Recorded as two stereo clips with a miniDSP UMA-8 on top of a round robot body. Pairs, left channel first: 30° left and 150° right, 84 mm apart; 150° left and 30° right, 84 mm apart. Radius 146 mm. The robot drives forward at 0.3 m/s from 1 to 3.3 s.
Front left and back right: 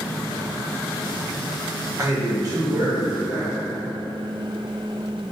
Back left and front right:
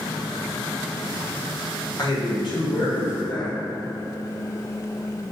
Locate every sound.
2.0 s a man speaking: 170° left, 1.0 m; by 3.5 s 175° left, 1.3 m